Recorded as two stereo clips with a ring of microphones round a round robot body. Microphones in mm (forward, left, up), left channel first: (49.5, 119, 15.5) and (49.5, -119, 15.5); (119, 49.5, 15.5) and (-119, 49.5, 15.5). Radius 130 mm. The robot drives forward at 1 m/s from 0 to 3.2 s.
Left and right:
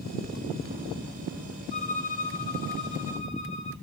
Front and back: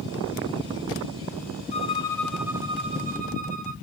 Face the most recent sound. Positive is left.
turn(degrees=145)